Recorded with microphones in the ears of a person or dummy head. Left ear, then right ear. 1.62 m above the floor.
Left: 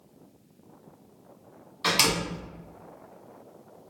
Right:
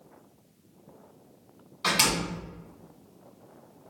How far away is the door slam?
About 1.4 m.